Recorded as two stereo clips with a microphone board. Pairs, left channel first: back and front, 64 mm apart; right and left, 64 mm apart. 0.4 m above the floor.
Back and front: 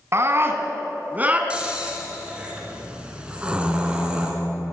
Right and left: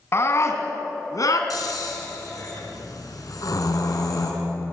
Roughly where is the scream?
Ahead right.